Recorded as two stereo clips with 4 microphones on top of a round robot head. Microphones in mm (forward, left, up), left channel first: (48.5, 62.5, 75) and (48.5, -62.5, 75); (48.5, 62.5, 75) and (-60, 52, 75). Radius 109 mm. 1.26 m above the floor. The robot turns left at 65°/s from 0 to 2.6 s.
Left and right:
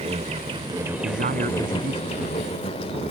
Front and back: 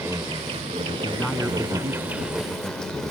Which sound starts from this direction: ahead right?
A man speaking, at 1.0 s.